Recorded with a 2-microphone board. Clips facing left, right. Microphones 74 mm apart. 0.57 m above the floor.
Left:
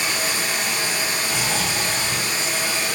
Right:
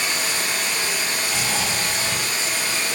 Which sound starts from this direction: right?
Snoring, at 1.2 s.